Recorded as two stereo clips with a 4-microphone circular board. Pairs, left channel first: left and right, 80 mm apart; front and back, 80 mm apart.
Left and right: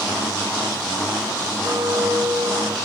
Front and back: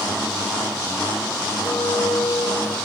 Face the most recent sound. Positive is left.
turn(degrees=-35)